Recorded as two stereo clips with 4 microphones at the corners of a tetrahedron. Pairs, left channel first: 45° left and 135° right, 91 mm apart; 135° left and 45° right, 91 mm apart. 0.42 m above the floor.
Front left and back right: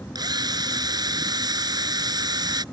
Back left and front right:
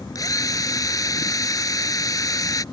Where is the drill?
175° right.